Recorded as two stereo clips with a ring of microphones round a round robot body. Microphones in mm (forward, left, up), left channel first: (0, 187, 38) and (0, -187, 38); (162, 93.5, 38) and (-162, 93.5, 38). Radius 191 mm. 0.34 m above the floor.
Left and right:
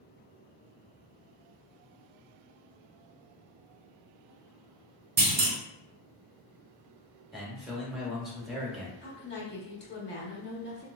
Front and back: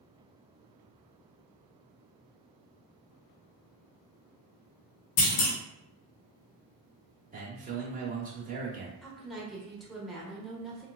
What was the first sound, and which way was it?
A clunk, 25° right.